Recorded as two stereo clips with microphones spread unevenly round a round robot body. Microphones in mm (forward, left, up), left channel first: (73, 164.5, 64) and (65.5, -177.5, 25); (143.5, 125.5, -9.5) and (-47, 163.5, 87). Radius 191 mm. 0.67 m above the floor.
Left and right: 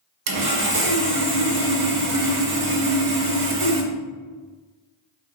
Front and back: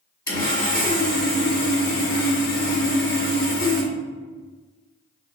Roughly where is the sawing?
Right.